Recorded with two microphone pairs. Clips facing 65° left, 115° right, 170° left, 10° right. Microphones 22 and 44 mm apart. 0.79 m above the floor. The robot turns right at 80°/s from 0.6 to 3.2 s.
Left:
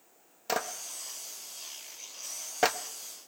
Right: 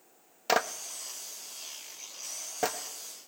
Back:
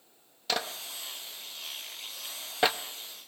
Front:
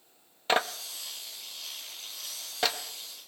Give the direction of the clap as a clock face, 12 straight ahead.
2 o'clock.